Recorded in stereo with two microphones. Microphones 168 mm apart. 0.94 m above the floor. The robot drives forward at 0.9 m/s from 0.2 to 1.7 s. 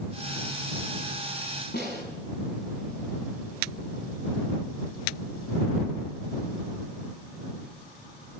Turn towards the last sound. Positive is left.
turn(degrees=85)